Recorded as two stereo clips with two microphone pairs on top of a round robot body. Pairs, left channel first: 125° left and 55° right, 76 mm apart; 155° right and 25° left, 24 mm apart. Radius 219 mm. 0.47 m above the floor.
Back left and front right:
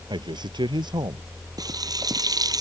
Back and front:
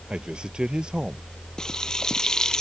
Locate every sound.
0.1 s a man speaking: 30° right
1.6 s frying: 90° right